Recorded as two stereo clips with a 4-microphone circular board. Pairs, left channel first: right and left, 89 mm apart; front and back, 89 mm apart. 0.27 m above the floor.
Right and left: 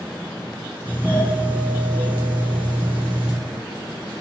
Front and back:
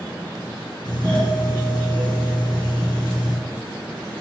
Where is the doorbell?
20° left, 3.5 m.